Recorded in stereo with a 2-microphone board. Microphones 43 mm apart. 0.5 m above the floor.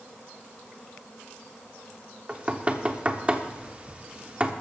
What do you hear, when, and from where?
2.3 s knocking: 30° right (ahead or behind), 0.9 m